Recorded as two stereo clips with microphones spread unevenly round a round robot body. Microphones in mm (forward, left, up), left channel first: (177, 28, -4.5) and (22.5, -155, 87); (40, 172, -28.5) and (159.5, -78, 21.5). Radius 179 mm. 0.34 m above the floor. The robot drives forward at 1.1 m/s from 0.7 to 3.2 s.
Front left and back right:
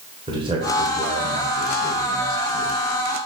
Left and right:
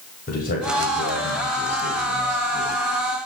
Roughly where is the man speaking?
Behind left.